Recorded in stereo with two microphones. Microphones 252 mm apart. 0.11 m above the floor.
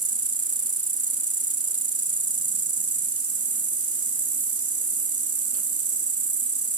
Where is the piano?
I don't hear a piano.